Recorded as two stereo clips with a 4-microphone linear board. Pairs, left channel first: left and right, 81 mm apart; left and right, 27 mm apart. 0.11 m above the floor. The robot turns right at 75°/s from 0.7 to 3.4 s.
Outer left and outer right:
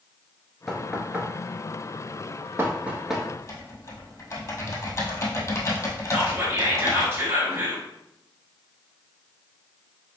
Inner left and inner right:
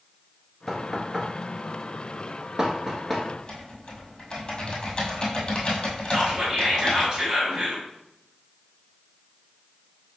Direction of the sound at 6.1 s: 30° right (ahead or behind).